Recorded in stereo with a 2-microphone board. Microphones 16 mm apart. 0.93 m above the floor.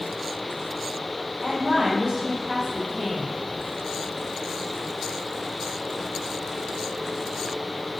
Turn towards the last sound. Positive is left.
turn(degrees=-10)  # may be behind; listen again after turning